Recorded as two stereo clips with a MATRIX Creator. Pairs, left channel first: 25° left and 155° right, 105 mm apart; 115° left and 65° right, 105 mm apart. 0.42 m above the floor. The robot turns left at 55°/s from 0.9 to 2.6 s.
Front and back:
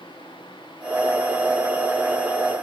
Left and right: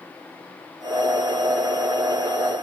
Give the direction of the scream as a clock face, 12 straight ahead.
No scream in this recording.